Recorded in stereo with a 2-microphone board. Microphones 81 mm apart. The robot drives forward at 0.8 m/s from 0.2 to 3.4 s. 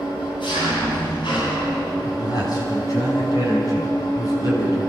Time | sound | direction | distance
0.0 | an engine running | 70° left (ahead or behind) | 8.5 m
2.0 | a man speaking | 55° left (ahead or behind) | 6.5 m